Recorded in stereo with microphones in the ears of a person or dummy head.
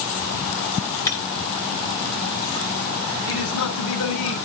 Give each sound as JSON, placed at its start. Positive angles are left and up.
{"t": 1.1, "sound": "breaking glass", "side_deg": 20, "distance_m": 5.0}
{"t": 3.3, "sound": "a man speaking", "side_deg": 80, "distance_m": 7.0}